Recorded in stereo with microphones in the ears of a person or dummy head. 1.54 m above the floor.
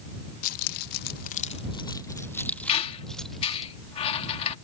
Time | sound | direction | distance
0.4 | keys jangling | 55° left (ahead or behind) | ?
2.7 | a squeak | 35° left (ahead or behind) | ?